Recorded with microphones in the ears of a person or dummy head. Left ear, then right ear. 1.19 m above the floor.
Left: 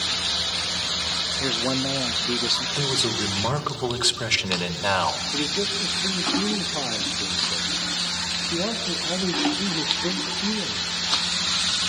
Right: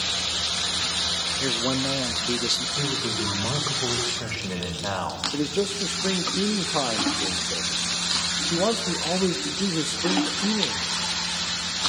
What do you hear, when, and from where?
1.4 s a man speaking: 5° left (ahead or behind), 0.8 m
2.8 s a man speaking: 85° left, 4 m
5.3 s a man speaking: 65° right (ahead or behind), 2 m